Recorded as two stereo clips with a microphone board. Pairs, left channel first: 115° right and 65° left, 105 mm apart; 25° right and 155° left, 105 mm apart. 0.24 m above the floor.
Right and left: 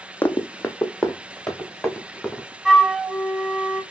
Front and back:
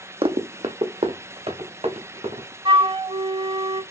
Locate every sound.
0.2 s running footsteps: straight behind, 0.7 m; by 2.5 s 165° left, 2.5 m
2.6 s a flute: 160° left, 0.7 m